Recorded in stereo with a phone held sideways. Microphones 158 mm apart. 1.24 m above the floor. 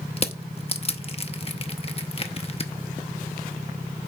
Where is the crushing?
40° left (ahead or behind), 0.7 m.